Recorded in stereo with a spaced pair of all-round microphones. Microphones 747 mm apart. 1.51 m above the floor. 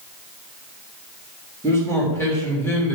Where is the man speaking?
5° left (ahead or behind), 2.5 m.